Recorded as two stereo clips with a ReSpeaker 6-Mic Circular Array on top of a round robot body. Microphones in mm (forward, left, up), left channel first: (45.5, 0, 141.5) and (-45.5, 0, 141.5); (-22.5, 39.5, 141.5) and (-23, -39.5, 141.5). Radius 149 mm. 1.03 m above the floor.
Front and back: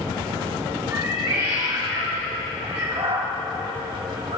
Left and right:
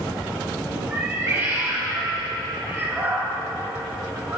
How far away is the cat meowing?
About 2.5 m.